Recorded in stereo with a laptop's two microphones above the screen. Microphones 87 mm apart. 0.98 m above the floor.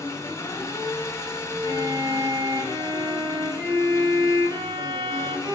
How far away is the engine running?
About 1.2 m.